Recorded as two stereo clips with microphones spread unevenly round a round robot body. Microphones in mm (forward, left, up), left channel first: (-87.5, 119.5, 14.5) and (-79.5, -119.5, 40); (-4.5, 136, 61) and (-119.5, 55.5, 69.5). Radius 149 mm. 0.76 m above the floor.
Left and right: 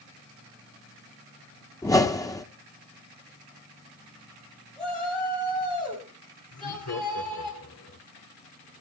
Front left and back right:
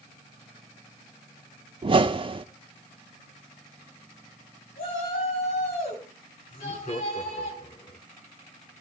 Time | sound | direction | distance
1.8 | a whoosh | 165° left | 1.3 m
4.8 | a shout | 5° left | 5 m
6.5 | laughter | 75° left | 2.5 m